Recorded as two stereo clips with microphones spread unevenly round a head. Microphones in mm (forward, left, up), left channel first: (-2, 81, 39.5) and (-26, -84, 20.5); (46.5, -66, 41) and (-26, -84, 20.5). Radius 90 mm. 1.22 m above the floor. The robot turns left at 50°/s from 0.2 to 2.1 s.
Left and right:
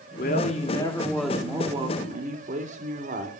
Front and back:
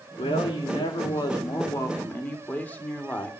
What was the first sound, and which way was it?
A man speaking, 45° left.